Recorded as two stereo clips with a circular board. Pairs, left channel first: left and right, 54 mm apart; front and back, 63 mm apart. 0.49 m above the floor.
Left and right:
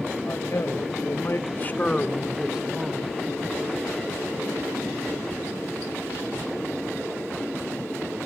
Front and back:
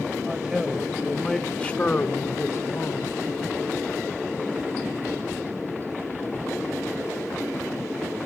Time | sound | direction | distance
0.2 | a man speaking | 105° left | 3 m